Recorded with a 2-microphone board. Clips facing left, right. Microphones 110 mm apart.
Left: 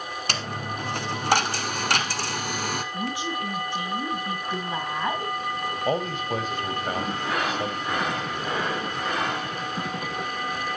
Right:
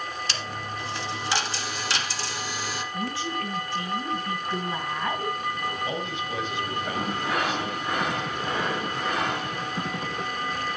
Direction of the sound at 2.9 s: 15° left (ahead or behind).